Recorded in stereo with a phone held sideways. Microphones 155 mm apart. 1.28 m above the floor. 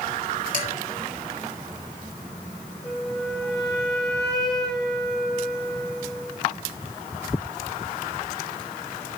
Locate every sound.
0.5 s dishes clattering: 55° left (ahead or behind), 2.5 m
2.8 s a flute: 5° left (ahead or behind), 2.5 m